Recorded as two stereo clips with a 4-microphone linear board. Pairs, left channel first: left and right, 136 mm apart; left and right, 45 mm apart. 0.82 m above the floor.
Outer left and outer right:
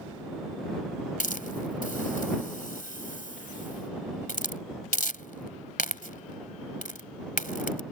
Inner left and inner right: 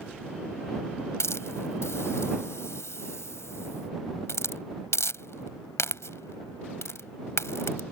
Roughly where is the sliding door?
No sliding door in this recording.